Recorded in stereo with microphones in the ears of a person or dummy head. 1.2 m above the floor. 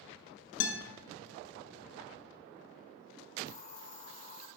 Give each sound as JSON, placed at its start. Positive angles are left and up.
{"t": 0.6, "sound": "a guitar", "side_deg": 60, "distance_m": 0.9}
{"t": 3.5, "sound": "a hiss", "side_deg": 40, "distance_m": 1.8}